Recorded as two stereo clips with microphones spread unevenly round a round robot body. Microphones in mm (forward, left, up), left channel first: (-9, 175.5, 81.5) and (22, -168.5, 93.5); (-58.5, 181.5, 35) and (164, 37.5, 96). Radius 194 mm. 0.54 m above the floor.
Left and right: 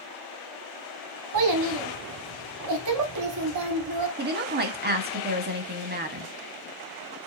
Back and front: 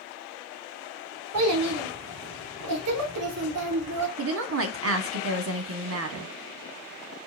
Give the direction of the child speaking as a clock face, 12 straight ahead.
2 o'clock.